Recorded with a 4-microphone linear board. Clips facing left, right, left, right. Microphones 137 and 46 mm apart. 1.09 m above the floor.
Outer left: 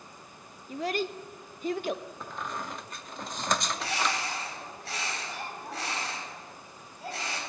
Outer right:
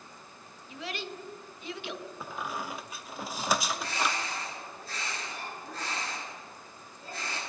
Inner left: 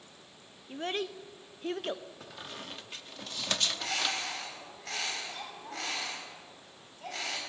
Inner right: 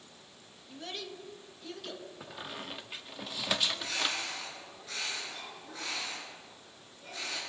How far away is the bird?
About 5.5 m.